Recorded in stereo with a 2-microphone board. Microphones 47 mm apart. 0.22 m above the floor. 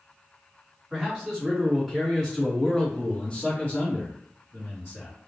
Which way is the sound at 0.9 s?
15° right (ahead or behind).